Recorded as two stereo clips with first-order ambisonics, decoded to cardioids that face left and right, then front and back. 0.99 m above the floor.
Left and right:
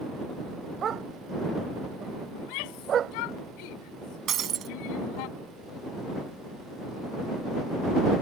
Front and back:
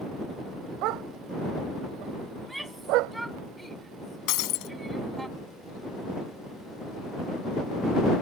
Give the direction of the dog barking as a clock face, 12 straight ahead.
5 o'clock.